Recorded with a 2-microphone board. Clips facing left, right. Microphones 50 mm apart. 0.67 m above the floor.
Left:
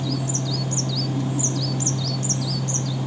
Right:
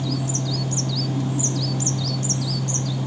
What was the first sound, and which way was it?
Only background noise.